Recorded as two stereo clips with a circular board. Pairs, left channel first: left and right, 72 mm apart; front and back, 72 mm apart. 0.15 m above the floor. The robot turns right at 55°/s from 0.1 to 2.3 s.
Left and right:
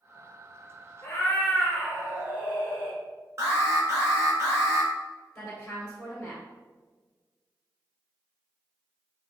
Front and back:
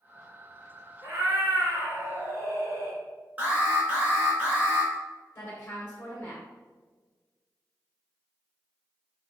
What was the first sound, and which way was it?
A cat meowing, 135° left.